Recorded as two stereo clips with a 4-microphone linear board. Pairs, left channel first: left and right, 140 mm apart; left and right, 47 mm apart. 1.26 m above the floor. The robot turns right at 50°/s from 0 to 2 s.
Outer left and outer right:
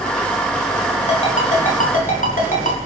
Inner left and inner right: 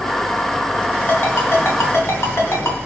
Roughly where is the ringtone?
Left.